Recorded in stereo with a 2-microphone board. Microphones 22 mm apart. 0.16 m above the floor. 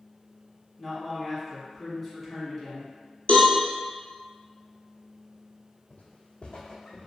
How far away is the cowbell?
About 0.9 m.